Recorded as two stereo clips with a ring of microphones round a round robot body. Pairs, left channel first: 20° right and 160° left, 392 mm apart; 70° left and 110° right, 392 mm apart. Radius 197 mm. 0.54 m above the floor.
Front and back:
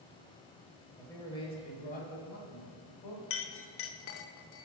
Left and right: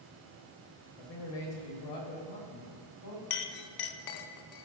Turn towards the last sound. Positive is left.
turn(degrees=35)